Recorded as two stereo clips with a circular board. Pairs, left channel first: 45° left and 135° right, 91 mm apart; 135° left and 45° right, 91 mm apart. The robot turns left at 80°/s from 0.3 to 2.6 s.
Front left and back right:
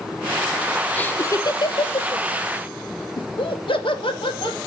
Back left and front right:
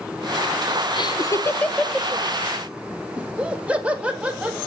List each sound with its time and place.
0.9 s laughter: 120° left, 0.7 m; by 2.2 s 15° left, 0.7 m
3.2 s laughter: 30° left, 1.9 m